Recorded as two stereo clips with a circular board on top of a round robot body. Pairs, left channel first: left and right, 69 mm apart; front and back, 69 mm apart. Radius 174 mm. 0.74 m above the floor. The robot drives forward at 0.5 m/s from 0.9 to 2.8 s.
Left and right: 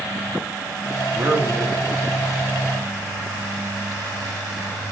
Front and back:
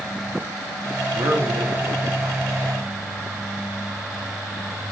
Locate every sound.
1.1 s a man speaking: 145° right, 0.9 m; by 2.5 s 160° right, 1.5 m